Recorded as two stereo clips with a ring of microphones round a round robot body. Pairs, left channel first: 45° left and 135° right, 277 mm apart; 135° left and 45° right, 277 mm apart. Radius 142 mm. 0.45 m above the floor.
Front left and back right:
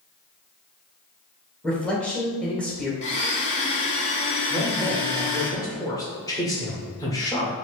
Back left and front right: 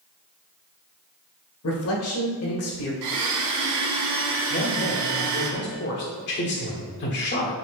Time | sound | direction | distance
1.6 | a man speaking | 130° left | 1.4 m
3.0 | a blender | 20° right | 0.8 m
4.5 | a man speaking | 115° left | 1.2 m